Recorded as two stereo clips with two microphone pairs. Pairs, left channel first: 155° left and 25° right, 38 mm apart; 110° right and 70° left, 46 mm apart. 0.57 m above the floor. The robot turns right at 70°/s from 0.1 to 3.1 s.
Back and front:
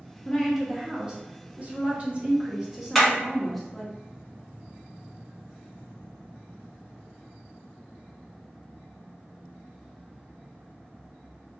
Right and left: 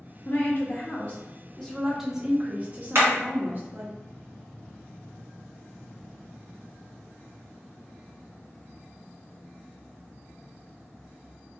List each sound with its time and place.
0.2 s a woman speaking: 135° right, 0.9 m; by 4.0 s 65° left, 0.9 m
3.0 s hammering: 65° left, 1.8 m; by 3.1 s 75° left, 1.8 m